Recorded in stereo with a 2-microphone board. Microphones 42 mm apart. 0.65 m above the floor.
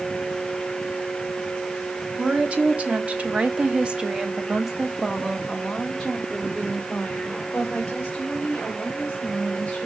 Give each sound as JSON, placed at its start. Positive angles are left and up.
{"t": 2.2, "sound": "a woman speaking", "side_deg": -35, "distance_m": 1.6}